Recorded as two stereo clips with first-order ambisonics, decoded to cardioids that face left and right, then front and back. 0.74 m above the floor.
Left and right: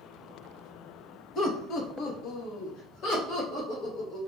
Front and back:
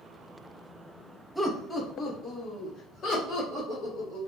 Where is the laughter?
85° left, 0.6 m; by 4.2 s 60° left, 2.5 m.